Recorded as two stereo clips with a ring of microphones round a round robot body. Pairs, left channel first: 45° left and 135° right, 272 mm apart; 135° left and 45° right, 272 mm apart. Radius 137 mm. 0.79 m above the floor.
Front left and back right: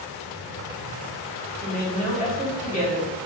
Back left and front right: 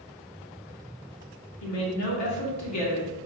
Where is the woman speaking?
110° left, 1.5 m.